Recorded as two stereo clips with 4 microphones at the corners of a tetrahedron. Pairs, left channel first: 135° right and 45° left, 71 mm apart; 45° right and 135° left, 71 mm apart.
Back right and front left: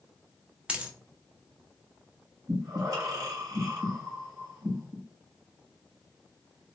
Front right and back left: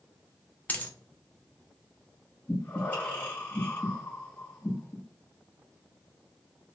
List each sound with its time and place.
0.7 s a dropped coin: 10° right, 0.6 m
2.5 s breathing: 15° left, 2 m